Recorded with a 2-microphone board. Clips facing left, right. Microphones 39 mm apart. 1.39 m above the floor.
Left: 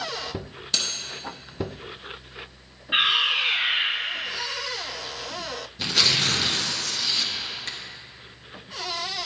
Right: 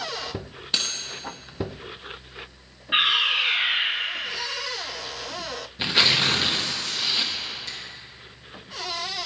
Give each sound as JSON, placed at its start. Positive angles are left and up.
{"t": 0.7, "sound": "cutlery clinking", "side_deg": -20, "distance_m": 1.1}
{"t": 2.9, "sound": "a fire alarm", "side_deg": -10, "distance_m": 2.5}
{"t": 5.8, "sound": "tearing paper", "side_deg": -25, "distance_m": 0.8}
{"t": 7.7, "sound": "a finger snap", "side_deg": 60, "distance_m": 1.0}